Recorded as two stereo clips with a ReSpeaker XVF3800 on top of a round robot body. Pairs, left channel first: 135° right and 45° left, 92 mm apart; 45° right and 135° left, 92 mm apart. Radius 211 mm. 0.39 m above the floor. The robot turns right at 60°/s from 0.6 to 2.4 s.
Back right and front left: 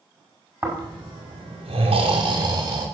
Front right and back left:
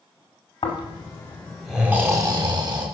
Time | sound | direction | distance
0.6 | snoring | 15° right | 1.8 m